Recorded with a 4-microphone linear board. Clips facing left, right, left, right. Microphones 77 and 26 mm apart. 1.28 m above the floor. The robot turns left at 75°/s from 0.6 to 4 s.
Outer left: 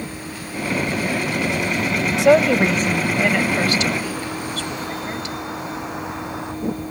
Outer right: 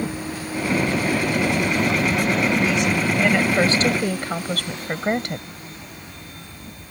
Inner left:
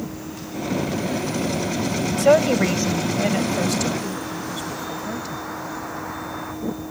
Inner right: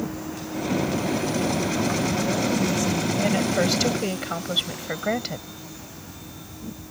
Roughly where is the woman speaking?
Left.